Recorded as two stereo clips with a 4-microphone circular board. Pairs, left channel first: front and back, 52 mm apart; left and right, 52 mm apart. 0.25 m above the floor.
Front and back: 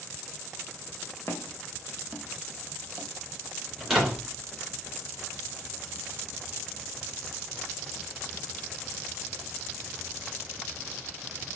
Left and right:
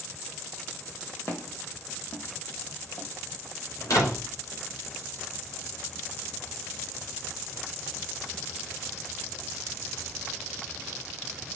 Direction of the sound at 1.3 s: 45° left.